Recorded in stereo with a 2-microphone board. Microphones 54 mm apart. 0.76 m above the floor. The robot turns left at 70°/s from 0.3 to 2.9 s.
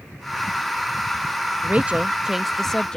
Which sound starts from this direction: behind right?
A woman speaking, at 1.6 s.